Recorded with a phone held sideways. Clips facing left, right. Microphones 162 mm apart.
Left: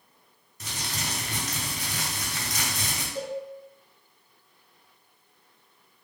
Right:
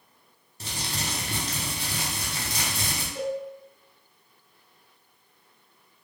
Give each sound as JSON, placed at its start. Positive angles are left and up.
{"t": 0.6, "sound": "crumpling", "side_deg": -30, "distance_m": 0.8}
{"t": 3.1, "sound": "a cowbell", "side_deg": 15, "distance_m": 1.6}